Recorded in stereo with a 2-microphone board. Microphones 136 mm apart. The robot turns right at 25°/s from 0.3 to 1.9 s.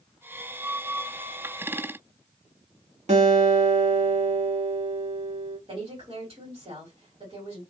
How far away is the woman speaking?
About 1.8 m.